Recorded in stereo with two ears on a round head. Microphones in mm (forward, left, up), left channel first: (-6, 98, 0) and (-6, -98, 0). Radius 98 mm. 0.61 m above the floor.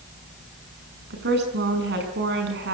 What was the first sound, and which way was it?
A woman speaking, 50° right (ahead or behind).